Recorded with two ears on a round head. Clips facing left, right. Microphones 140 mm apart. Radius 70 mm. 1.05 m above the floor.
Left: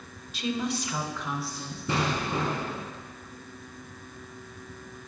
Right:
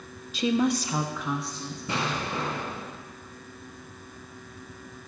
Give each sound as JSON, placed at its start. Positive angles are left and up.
{"t": 0.3, "sound": "a woman speaking", "side_deg": -70, "distance_m": 0.7}
{"t": 1.9, "sound": "an explosion", "side_deg": 40, "distance_m": 2.0}